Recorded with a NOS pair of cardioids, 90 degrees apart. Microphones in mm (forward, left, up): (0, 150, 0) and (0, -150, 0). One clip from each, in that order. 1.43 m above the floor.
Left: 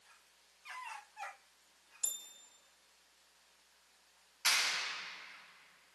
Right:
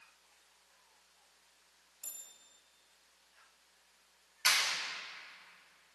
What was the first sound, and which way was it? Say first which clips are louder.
A bell: left 8 dB; 60° left.